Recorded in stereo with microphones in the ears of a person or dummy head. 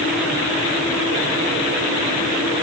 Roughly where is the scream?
I don't hear a scream.